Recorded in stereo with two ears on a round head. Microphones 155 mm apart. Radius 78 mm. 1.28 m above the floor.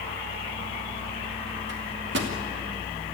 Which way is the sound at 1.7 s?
80° right.